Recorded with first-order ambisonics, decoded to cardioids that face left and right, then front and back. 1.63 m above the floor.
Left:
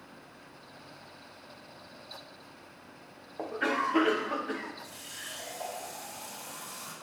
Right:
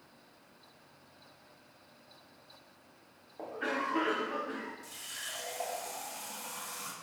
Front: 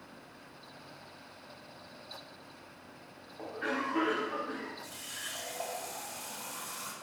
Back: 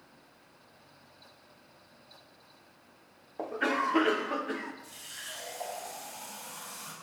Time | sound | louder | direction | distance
3.4 | a cough | left 5 dB, back 5 dB | 140° left | 0.7 m
4.8 | a running tap | even, front 2 dB | 50° right | 2.5 m